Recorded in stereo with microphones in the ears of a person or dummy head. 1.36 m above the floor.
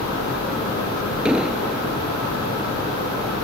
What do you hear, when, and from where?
1.2 s an explosion: 5° right (ahead or behind)